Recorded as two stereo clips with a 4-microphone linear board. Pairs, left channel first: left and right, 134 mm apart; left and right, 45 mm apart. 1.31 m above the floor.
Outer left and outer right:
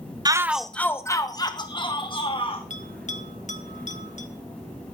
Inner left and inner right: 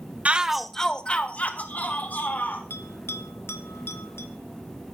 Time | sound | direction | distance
0.2 | a shout | 30° right (ahead or behind) | 0.6 m
2.7 | a bell | 65° left (ahead or behind) | 1.3 m